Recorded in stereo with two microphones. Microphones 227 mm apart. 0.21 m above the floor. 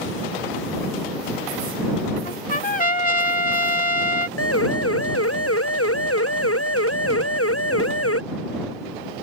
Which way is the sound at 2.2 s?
35° left (ahead or behind).